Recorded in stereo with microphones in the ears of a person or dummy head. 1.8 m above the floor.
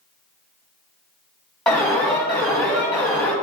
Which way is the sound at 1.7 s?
5° left (ahead or behind).